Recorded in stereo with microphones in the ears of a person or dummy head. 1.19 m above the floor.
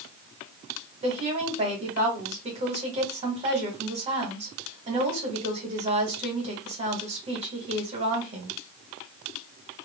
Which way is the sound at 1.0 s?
30° right (ahead or behind).